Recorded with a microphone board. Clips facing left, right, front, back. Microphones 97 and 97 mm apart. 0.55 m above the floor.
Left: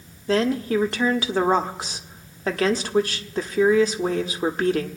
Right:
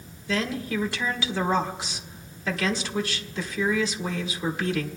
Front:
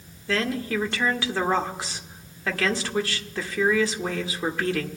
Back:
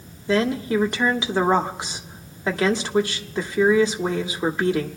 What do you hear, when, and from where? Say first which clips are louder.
0.3 s a woman speaking: left 7 dB, back 5 dB; 115° left, 1.2 m